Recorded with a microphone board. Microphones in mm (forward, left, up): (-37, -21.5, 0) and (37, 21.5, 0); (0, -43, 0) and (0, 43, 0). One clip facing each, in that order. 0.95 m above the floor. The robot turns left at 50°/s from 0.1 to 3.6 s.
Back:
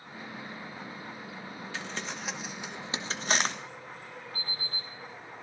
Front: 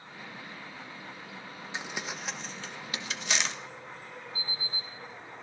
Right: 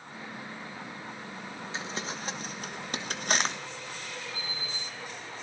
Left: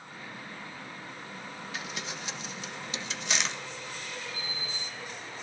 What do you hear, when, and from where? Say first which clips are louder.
1.7 s crumpling: front 1 dB, right 3 dB; 35° right, 1.1 m; by 3.5 s 125° right, 1.1 m
4.3 s an alarm clock: even, even; 130° right, 9 m